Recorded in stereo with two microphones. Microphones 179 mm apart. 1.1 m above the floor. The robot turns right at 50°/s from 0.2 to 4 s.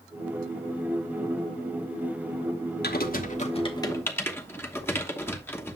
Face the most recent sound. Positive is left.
turn(degrees=15)  # may be behind; listen again after turning